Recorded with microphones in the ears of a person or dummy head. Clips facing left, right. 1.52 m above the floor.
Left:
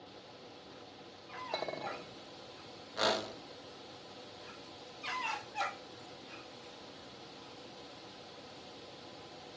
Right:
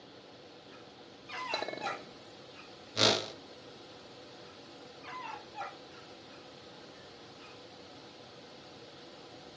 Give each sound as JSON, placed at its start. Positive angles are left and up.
{"t": 1.5, "sound": "a clink", "side_deg": -20, "distance_m": 0.9}
{"t": 3.0, "sound": "a whoosh", "side_deg": -35, "distance_m": 0.5}